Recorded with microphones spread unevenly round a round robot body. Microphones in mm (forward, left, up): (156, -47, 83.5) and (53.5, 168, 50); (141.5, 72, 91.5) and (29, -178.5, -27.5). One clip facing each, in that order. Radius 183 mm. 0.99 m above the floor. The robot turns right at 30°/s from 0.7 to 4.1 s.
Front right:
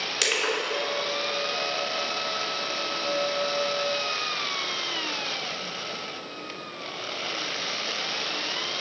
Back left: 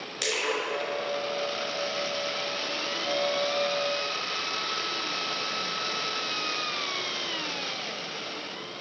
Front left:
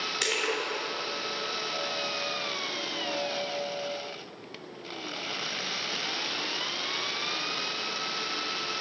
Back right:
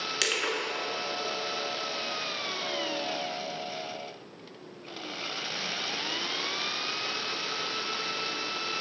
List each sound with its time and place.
0.2 s crushing: 80° right, 3.5 m